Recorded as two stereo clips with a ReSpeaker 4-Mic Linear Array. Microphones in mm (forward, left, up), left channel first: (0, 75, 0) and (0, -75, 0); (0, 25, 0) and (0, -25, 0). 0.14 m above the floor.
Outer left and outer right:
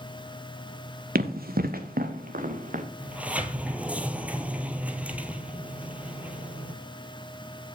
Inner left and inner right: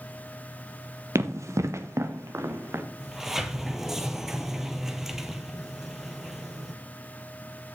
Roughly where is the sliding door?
Centre.